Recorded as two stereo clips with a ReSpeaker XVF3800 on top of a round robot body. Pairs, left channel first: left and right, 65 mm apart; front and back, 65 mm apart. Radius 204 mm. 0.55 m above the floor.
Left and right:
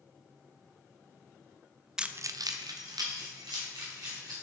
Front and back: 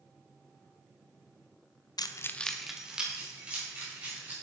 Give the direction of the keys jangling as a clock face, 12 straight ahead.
12 o'clock.